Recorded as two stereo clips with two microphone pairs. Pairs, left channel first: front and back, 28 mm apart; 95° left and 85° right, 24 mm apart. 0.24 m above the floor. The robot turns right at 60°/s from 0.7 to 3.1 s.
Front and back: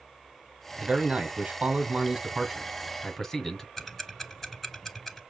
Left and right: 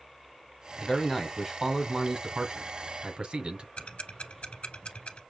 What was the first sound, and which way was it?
A man speaking, 150° left.